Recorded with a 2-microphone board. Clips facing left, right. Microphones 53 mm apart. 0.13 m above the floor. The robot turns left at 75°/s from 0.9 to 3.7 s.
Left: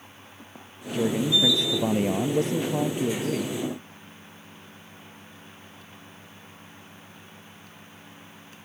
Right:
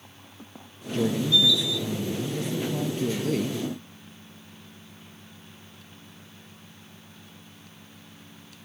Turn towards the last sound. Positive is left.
turn(degrees=-30)